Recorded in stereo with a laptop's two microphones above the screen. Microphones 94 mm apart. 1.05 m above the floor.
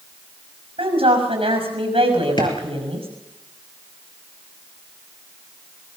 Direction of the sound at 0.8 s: 85° right.